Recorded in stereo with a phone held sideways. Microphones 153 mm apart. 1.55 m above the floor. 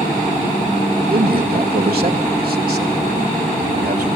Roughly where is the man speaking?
Right.